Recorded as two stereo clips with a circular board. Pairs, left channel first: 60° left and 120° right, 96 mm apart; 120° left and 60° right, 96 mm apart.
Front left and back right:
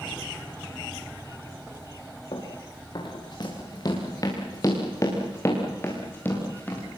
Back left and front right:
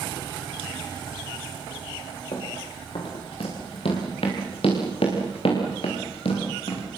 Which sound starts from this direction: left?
Running footsteps, at 2.3 s.